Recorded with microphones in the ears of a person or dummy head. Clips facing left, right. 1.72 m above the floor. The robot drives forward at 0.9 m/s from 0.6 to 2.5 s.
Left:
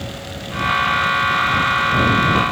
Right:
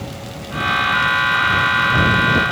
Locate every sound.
Only background noise.